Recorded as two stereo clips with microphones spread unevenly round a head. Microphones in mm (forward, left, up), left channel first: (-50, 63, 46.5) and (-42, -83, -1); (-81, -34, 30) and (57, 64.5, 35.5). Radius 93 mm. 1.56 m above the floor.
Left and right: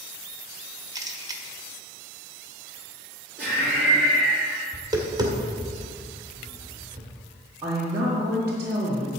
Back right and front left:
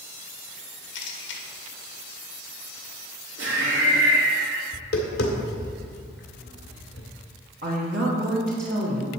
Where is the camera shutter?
150° right, 1.6 m.